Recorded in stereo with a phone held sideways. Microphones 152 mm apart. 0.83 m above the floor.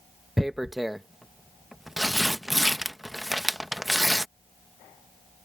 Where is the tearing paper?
Centre (ahead or behind).